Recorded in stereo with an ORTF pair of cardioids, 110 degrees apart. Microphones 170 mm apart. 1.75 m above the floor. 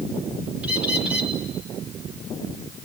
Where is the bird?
5° right, 3.5 m.